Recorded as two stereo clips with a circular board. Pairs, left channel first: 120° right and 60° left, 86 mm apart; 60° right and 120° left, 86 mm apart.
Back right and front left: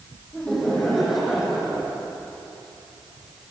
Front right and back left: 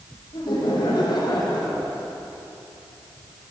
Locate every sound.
0.3 s laughter: 35° right, 4 m; by 2.0 s 20° right, 4 m